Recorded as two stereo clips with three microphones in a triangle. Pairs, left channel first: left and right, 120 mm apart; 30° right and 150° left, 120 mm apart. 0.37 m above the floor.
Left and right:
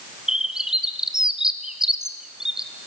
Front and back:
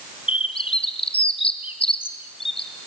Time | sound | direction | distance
0.3 | a bird | 5° right | 1.6 m